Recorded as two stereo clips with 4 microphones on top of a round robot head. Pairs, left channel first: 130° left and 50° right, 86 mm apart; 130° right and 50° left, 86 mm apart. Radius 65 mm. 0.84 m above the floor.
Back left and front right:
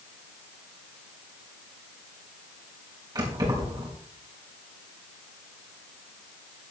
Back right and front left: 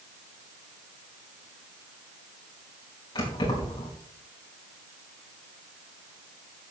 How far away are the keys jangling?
About 4.5 m.